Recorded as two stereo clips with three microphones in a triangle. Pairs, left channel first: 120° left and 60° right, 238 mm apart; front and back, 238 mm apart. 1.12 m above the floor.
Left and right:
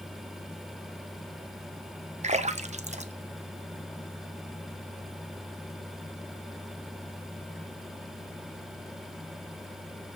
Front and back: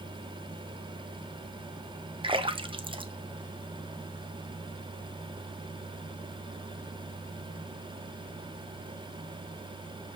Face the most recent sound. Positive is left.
turn(degrees=-120)